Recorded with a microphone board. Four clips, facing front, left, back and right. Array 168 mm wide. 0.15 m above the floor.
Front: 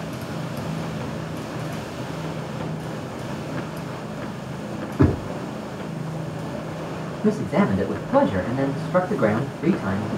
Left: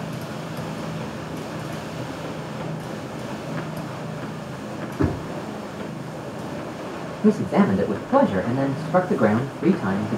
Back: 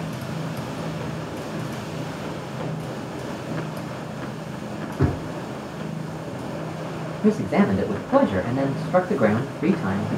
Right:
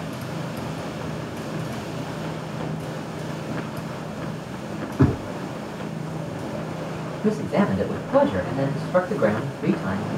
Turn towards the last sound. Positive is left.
turn(degrees=150)